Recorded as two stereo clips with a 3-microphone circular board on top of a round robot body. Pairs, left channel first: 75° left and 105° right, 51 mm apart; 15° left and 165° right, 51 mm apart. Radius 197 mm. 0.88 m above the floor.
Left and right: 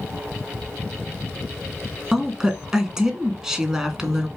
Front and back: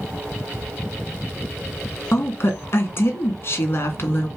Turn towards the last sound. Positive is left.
turn(degrees=-25)